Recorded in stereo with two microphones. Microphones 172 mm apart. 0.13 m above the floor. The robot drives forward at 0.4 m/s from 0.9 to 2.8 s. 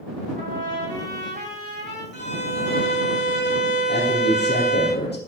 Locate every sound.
0.3 s a trumpet: 50° right (ahead or behind), 6.5 m; by 2.0 s 55° right (ahead or behind), 6 m
2.1 s a violin: 80° left, 6 m
3.9 s a man speaking: 70° left (ahead or behind), 5 m